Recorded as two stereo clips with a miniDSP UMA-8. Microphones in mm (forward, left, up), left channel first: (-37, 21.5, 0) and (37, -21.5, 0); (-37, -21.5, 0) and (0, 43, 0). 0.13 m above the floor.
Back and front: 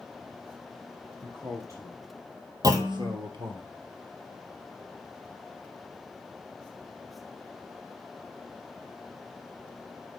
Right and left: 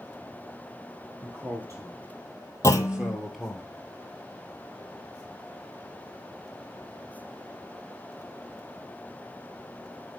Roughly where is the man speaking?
Ahead left.